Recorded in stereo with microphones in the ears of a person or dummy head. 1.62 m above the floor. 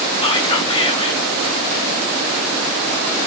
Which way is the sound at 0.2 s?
25° left (ahead or behind).